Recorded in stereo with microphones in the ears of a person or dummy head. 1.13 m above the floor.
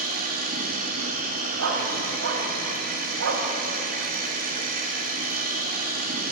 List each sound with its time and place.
0.0 s a machine running: 45° right (ahead or behind), 1.1 m
1.6 s a dog barking: 75° right (ahead or behind), 2.5 m